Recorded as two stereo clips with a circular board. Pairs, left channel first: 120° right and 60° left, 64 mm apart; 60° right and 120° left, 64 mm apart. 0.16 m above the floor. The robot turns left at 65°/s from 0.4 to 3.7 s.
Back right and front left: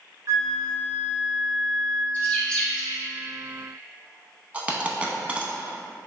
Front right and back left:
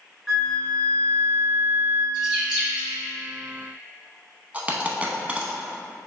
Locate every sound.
0.3 s a flute: 35° left, 1.6 m; by 2.0 s 70° right, 1.6 m
2.1 s a bird: 150° right, 1.6 m; by 3.0 s 155° left, 1.6 m
4.5 s a dropped coin: 95° left, 0.6 m